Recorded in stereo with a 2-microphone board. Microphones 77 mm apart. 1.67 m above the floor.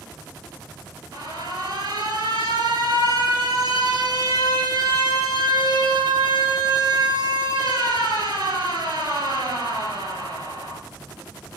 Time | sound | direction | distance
1.1 | an alarm | 75° right (ahead or behind) | 3 m